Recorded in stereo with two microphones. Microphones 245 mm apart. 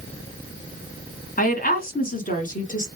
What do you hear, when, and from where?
1.4 s a woman speaking: 35° left (ahead or behind), 1.3 m